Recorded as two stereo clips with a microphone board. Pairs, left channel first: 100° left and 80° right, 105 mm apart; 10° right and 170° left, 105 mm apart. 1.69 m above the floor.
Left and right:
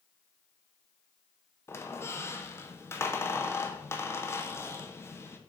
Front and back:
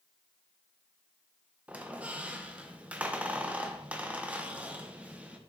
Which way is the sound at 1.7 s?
115° left.